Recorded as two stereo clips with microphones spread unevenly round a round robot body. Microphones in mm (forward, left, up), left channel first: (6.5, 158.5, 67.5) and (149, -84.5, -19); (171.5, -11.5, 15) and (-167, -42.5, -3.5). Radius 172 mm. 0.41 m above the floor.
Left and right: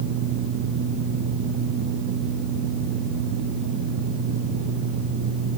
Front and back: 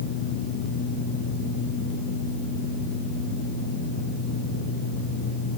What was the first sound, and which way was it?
Only background noise.